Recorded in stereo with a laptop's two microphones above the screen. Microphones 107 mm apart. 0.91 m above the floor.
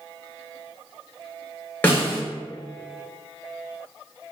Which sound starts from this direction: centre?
A snare drum, at 1.8 s.